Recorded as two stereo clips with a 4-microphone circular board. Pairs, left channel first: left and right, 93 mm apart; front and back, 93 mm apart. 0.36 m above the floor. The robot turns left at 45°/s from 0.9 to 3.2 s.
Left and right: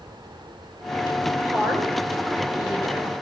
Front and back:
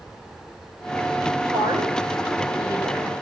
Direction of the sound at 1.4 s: 175° right.